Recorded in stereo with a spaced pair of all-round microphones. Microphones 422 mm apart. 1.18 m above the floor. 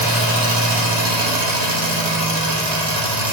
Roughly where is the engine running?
Right.